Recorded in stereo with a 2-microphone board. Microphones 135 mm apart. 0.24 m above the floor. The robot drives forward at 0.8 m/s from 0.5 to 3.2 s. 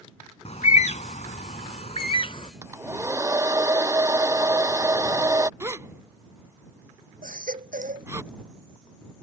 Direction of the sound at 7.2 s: 80° right.